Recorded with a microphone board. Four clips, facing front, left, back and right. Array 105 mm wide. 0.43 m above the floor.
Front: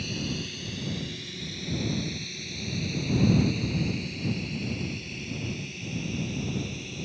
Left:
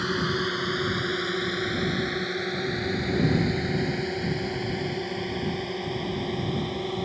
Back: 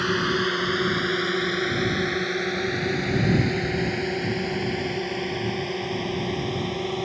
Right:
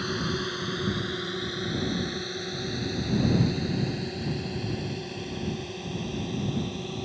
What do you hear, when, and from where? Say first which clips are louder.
0.0 s a drone: left 3 dB, back 11 dB; 165° left; by 7.0 s 155° left